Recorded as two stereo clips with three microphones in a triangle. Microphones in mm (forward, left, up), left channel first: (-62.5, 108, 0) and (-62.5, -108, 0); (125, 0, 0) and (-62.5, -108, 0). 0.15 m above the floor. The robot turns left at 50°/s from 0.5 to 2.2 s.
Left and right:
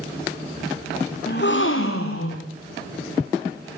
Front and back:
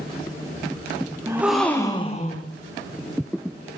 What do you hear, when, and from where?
1.3 s a gasp: 135° left, 3.5 m; by 2.5 s 90° left, 3.5 m